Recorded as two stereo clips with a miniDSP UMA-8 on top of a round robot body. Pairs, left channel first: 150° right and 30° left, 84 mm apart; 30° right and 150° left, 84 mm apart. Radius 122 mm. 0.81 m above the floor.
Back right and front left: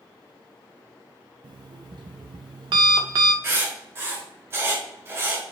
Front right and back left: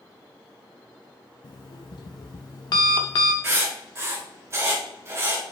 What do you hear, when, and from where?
1.4 s an alarm clock: 5° left, 0.6 m
3.4 s writing: 90° left, 1.3 m